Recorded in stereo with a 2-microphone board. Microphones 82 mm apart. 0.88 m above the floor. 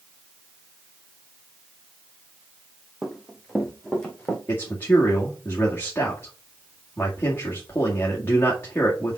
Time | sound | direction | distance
3.0 | running footsteps | 5° right (ahead or behind) | 2 m
4.5 | a man speaking | 25° left (ahead or behind) | 1.9 m